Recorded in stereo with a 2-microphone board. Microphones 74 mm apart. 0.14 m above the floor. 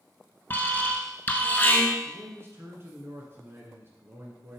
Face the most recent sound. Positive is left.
turn(degrees=-35)  # may be behind; listen again after turning